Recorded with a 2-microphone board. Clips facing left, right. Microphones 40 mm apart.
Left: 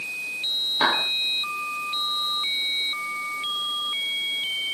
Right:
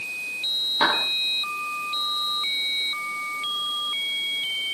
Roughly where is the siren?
I don't hear a siren.